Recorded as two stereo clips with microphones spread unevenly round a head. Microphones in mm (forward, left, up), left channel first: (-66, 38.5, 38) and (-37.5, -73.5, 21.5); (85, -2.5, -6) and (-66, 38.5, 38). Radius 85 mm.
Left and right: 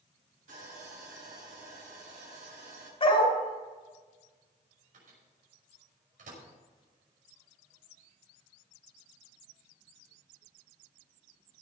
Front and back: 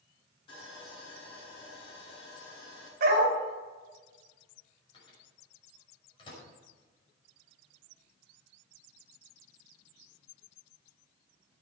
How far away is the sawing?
About 7 m.